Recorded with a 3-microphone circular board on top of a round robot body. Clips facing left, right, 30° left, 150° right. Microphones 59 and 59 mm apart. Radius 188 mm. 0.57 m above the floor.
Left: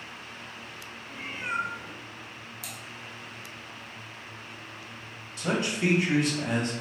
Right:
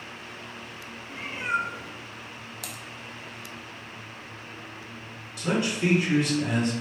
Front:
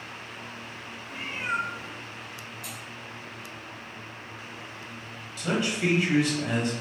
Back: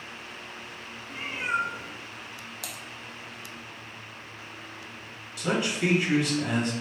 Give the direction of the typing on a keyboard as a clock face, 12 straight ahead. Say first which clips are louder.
Right 2 dB, even; 4 o'clock.